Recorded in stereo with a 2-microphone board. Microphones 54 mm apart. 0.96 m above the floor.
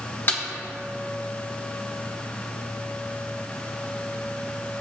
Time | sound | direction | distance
0.3 | a snare drum | 45° left (ahead or behind) | 1.4 m